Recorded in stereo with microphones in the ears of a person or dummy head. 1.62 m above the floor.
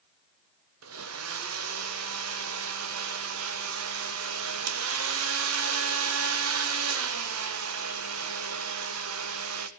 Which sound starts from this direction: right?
A blender, at 0.8 s.